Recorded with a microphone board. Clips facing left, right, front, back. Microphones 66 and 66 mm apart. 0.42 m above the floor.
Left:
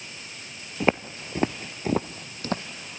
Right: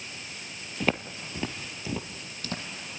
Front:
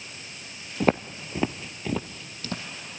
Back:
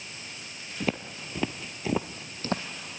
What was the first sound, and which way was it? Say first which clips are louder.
Footsteps: left 5 dB, front 8 dB; 25° left.